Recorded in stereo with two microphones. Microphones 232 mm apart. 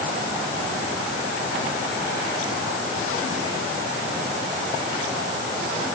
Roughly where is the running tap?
No running tap in this recording.